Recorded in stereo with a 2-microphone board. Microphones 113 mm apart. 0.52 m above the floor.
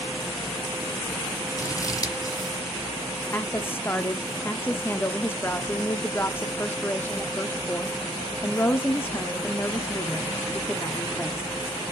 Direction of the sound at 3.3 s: 20° left (ahead or behind).